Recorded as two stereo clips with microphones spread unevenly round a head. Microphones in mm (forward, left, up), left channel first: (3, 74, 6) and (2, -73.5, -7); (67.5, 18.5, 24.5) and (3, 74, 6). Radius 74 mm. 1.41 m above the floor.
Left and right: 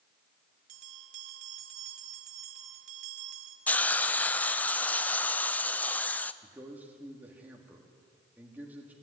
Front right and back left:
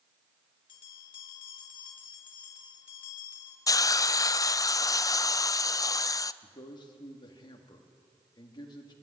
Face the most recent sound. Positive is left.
turn(degrees=-10)